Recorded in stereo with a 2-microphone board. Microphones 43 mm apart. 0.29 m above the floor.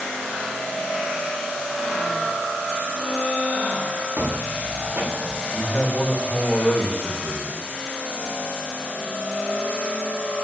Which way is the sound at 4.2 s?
75° right (ahead or behind).